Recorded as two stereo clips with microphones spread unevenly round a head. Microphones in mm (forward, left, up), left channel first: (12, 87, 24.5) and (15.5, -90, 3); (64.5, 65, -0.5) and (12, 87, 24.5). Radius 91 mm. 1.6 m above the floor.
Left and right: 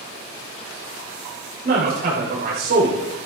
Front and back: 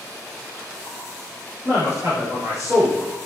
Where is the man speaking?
130° right, 6.5 m.